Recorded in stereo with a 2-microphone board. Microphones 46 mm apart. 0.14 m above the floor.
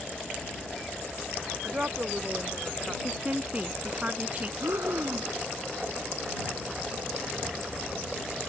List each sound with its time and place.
1.6 s a woman speaking: 30° right (ahead or behind); by 2.9 s 25° right (ahead or behind)
3.0 s a woman speaking: 30° right (ahead or behind)
4.6 s breathing: 70° right (ahead or behind)